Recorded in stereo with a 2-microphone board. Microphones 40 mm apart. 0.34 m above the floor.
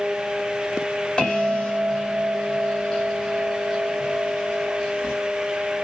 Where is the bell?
10° left (ahead or behind), 1.5 m.